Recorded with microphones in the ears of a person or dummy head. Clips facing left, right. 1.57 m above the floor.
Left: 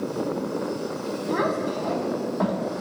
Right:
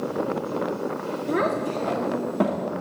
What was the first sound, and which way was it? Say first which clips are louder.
A child speaking: right 1 dB; 35° right (ahead or behind).